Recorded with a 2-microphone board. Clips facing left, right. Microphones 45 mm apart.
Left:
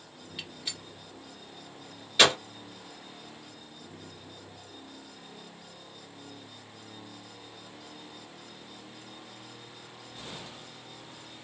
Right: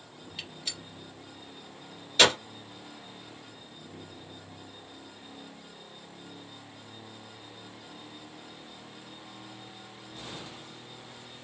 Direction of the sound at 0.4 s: 10° left (ahead or behind).